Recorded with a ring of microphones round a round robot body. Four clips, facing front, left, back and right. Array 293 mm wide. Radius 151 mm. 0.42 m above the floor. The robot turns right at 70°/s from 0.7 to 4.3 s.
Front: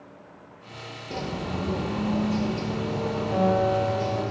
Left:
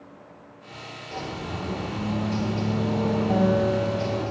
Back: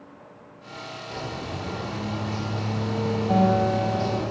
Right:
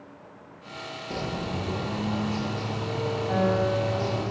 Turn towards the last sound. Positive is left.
turn(degrees=-145)